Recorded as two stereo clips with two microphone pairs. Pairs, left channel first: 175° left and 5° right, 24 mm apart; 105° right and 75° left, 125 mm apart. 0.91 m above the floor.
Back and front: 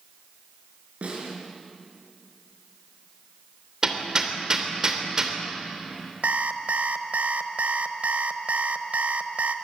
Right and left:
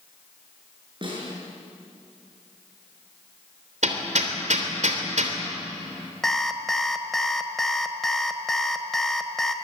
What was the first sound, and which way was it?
A snare drum, 25° left.